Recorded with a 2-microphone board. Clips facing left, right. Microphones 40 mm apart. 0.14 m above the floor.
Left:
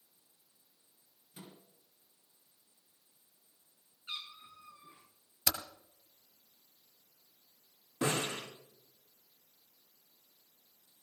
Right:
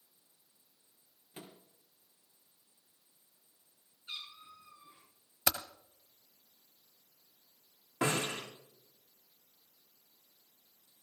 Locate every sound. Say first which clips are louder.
1.3 s a microwave: right 2 dB; 50° right (ahead or behind), 3.5 m
4.1 s a cat meowing: left 1 dB; 35° left (ahead or behind), 6.5 m
5.5 s typing on a keyboard: right 3 dB; 30° right (ahead or behind), 1.0 m
8.0 s a snare drum: right 1 dB; 40° right (ahead or behind), 8 m